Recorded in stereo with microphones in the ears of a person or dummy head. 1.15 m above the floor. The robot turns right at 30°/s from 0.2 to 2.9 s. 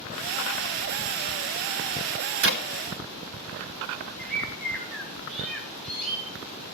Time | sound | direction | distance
2.4 | a clap | 65° right (ahead or behind) | 1.0 m
4.2 | a bird | 5° left (ahead or behind) | 2 m